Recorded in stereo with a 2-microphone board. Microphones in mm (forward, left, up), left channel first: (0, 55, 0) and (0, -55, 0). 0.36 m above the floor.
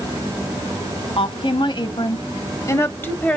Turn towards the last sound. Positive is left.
turn(degrees=10)  # may be behind; listen again after turning